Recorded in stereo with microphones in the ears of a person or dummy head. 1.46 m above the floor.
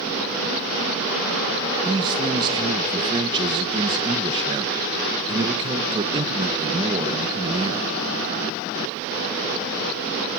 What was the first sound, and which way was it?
A man speaking, 25° right (ahead or behind).